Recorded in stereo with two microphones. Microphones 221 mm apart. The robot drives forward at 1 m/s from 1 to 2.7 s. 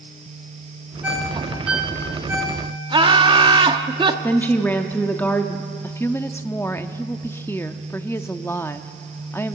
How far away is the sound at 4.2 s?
About 0.9 m.